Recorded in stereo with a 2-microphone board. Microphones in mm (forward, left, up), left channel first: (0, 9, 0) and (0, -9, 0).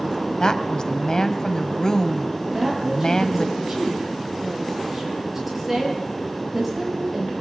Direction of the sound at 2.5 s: 15° right (ahead or behind).